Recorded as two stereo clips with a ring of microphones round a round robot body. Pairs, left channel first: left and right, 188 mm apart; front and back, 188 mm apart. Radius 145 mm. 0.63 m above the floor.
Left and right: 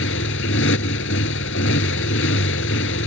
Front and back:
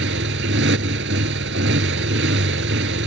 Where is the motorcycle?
135° left.